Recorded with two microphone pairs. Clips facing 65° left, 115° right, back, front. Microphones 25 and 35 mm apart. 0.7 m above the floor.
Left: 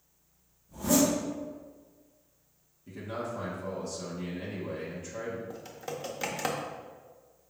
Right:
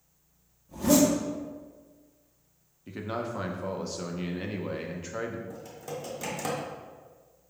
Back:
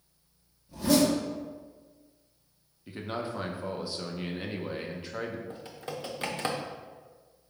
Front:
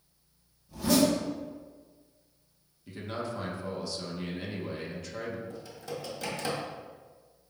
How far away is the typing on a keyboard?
About 0.6 m.